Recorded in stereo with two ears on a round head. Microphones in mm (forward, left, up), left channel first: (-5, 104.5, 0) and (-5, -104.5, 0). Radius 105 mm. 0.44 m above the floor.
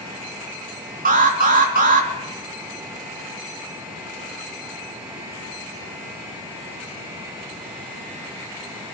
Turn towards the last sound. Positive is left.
turn(degrees=-35)  # may be behind; listen again after turning